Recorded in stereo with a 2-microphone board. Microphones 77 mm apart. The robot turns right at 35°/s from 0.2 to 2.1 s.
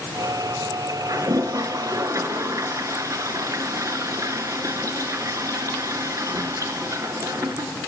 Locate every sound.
1.1 s a toilet flushing: 105° right, 0.8 m; by 7.7 s 65° right, 0.8 m